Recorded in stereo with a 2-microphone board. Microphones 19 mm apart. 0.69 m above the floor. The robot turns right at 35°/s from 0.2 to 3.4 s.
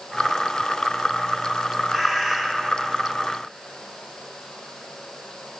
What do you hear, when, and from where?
1.9 s a bird: 20° right (ahead or behind), 6 m; by 2.4 s 35° right (ahead or behind), 6 m